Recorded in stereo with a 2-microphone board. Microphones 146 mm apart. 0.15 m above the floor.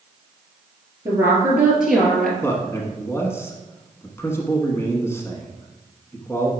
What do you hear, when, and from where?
1.1 s a woman speaking: 20° right (ahead or behind), 2.5 m; by 2.3 s 5° left (ahead or behind), 2.5 m
2.4 s a man speaking: 20° left (ahead or behind), 1.1 m